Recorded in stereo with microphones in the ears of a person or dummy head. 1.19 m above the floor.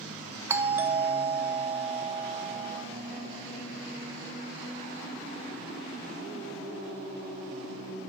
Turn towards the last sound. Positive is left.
turn(degrees=-10)  # may be behind; listen again after turning